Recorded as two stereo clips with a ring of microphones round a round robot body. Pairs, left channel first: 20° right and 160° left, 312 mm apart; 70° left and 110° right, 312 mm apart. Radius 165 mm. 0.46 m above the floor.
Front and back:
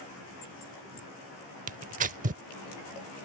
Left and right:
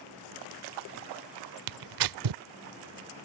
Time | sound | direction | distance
1.7 | tearing paper | 135° right | ?